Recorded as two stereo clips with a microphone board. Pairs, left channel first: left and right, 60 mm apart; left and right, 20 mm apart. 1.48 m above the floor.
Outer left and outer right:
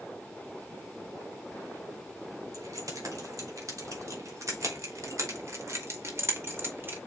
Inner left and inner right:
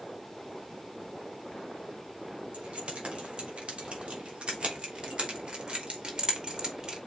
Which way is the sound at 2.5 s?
75° right (ahead or behind).